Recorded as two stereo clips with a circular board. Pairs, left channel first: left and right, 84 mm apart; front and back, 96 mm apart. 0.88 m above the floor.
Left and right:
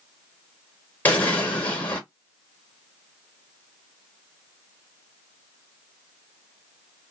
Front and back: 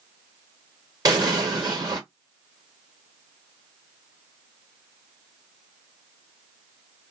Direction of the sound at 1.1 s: 150° left.